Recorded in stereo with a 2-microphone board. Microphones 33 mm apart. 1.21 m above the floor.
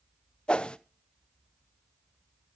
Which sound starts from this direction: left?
A whoosh, at 0.5 s.